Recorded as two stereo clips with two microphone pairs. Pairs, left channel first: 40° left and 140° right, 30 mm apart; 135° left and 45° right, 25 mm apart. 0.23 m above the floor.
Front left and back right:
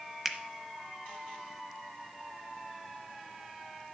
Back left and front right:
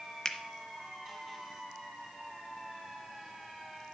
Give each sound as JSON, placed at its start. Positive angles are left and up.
{"t": 0.2, "sound": "a finger snap", "azimuth_deg": 150, "distance_m": 0.8}